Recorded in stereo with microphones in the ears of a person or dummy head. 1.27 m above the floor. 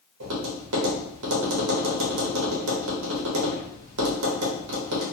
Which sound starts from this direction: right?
Tapping, at 0.2 s.